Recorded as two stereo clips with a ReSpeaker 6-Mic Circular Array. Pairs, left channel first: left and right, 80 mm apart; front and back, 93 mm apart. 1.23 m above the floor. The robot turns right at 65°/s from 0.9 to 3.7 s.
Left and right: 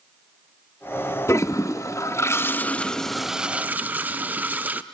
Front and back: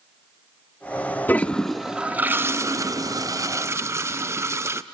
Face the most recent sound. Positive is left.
turn(degrees=-145)